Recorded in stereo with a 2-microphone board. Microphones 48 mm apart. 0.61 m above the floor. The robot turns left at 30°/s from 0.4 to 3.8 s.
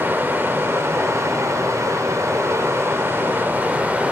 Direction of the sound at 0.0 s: 45° right.